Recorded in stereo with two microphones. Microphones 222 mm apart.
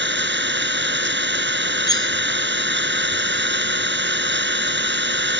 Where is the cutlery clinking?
20° left (ahead or behind).